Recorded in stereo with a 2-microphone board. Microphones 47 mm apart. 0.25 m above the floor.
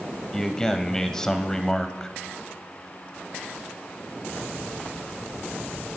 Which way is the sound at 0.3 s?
15° left (ahead or behind).